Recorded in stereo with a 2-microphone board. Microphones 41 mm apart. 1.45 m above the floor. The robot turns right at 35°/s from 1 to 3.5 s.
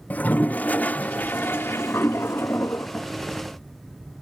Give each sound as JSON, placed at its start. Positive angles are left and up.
{"t": 0.1, "sound": "a toilet flushing", "azimuth_deg": 40, "distance_m": 0.6}